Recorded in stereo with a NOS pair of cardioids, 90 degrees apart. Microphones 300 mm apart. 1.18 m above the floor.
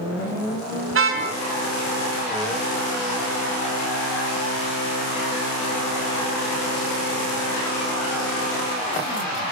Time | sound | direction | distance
0.9 | a car horn | 45° right | 5.5 m